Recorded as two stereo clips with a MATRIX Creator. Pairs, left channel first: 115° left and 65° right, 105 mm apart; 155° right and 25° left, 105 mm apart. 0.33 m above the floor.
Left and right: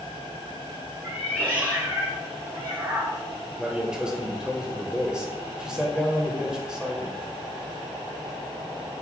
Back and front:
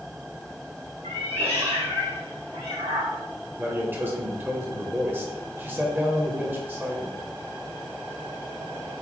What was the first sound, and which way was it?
A cat meowing, 5° left.